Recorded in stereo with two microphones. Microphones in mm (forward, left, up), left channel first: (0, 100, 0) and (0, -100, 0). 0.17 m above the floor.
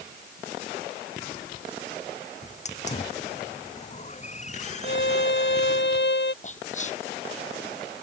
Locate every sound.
2.4 s a hiss: 35° left (ahead or behind)
4.8 s a violin: 65° left (ahead or behind)
6.4 s whispering: 35° left (ahead or behind)